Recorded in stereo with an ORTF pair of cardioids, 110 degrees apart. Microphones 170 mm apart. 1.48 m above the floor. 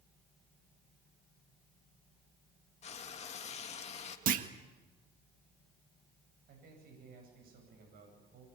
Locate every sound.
2.8 s frying: 40° left, 2.5 m
4.3 s a clunk: 60° right, 1.6 m
6.5 s a man speaking: 65° right, 9.5 m